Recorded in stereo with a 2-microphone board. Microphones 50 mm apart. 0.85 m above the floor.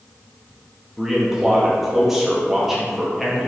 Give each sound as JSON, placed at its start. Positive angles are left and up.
{"t": 1.0, "sound": "a man speaking", "side_deg": -5, "distance_m": 0.7}